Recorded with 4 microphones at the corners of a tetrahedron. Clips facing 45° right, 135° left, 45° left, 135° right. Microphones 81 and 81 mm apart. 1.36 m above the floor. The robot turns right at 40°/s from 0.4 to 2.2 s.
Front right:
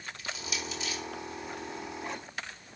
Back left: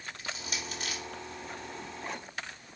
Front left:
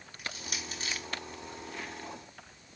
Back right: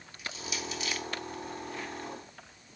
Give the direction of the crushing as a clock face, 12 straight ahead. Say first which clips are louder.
Front right 2 dB, back right 3 dB; 9 o'clock.